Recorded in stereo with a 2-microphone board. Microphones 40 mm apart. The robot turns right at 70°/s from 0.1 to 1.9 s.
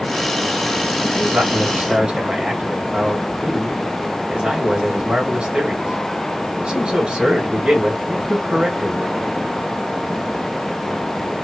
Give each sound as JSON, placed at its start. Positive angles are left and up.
{"t": 1.1, "sound": "a man speaking", "azimuth_deg": -90, "distance_m": 2.0}